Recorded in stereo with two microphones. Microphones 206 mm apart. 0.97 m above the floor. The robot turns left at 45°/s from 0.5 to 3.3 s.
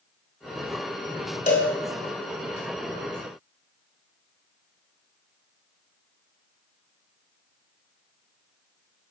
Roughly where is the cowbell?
Left.